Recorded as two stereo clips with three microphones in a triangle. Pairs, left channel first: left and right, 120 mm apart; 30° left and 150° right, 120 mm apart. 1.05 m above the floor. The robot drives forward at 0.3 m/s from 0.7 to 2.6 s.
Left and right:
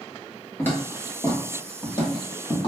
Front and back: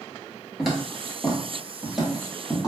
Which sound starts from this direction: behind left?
Footsteps, at 0.6 s.